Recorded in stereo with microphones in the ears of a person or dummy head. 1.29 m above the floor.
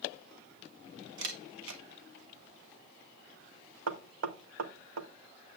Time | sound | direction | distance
1.2 | a camera shutter | 75° right (ahead or behind) | 1.1 m
3.9 | knocking | 90° right | 0.8 m